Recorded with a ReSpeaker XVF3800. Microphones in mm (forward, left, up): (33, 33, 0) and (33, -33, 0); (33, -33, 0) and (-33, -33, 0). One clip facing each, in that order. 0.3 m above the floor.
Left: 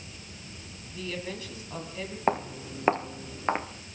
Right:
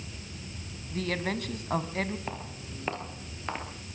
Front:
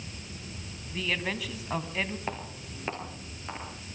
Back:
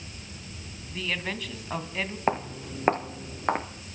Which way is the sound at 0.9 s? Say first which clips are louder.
Right 5 dB, even; 90° right.